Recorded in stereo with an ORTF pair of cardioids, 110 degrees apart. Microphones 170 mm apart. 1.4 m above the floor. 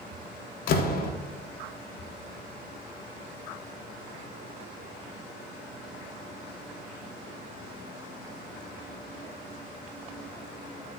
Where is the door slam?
65° left, 0.8 m.